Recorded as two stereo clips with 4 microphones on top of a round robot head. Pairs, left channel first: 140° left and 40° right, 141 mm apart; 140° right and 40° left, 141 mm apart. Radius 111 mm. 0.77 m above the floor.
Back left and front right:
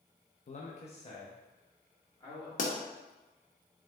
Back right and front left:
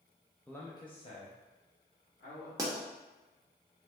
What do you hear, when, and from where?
0.5 s a man speaking: 135° left, 0.6 m; by 2.5 s 155° right, 1.8 m
2.6 s a pop: 110° left, 0.7 m